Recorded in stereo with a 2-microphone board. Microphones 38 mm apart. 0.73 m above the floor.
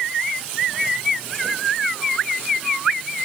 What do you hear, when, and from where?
Only background noise.